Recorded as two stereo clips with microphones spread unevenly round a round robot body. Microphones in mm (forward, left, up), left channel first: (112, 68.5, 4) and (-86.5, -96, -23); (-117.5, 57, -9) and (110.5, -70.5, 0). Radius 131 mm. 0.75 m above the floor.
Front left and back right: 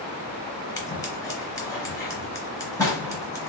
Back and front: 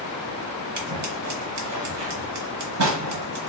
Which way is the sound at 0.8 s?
35° right.